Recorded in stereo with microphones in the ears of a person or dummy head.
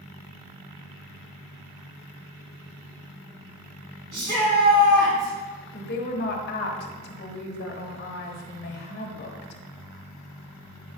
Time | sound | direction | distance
4.1 | a shout | 50° right (ahead or behind) | 1.7 m
5.7 | a woman speaking | 50° left (ahead or behind) | 1.3 m